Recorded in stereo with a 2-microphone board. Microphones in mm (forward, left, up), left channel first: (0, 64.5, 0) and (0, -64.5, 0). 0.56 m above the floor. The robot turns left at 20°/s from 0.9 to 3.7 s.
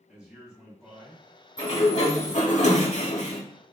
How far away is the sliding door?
About 0.7 m.